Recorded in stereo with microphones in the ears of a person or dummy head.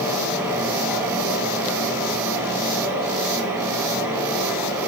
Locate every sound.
0.0 s a fan: 10° right (ahead or behind), 3.5 m